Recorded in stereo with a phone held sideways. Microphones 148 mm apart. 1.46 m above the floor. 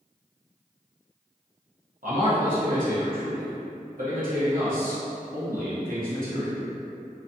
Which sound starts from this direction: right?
A man speaking, at 2.0 s.